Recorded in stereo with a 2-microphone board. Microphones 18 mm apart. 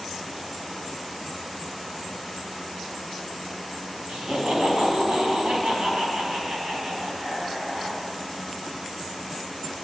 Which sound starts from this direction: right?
Laughter, at 4.1 s.